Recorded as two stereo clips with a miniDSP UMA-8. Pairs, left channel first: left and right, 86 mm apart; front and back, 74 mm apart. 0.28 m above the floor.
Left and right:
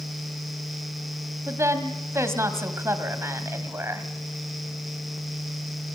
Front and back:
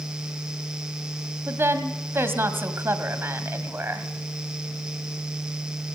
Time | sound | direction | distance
1.5 | a woman speaking | 135° right | 1.8 m